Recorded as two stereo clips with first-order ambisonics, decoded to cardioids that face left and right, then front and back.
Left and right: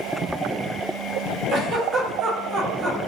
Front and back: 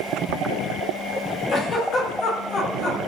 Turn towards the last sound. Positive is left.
turn(degrees=-50)